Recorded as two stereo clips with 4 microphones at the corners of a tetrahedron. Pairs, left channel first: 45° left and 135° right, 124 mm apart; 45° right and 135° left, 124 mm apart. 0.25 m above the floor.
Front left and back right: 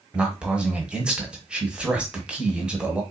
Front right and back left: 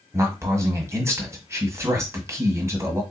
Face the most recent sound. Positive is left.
turn(degrees=155)